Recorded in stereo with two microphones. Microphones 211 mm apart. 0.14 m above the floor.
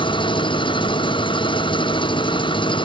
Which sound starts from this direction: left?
An engine running, at 0.0 s.